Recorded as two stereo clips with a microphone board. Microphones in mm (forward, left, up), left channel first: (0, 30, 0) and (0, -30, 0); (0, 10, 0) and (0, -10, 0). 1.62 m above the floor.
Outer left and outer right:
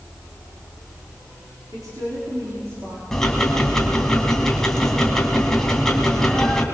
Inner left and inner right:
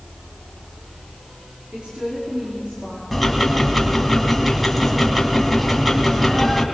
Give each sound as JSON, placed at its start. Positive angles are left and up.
{"t": 1.7, "sound": "a woman speaking", "side_deg": -80, "distance_m": 5.0}
{"t": 3.1, "sound": "ticking", "side_deg": 10, "distance_m": 2.5}